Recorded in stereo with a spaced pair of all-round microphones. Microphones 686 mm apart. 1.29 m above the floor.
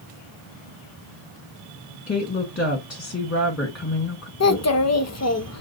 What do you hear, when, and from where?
2.1 s a woman speaking: 20° left (ahead or behind), 1.1 m
4.4 s a child speaking: 25° left (ahead or behind), 0.5 m